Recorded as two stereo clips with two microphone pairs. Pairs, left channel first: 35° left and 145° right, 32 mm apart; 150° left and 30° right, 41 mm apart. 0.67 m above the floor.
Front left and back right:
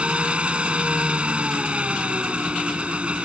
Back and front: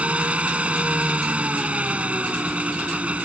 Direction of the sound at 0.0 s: 90° right.